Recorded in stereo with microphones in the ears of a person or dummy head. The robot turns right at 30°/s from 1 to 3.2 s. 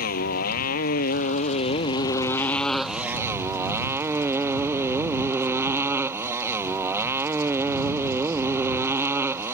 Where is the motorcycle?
125° left; by 9.5 s 165° right.